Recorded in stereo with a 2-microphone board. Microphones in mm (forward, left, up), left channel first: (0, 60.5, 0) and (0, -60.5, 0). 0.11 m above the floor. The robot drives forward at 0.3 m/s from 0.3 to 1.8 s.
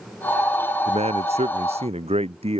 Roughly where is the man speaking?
Right.